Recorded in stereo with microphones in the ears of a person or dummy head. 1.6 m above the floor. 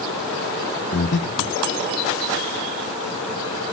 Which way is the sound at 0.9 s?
60° left (ahead or behind).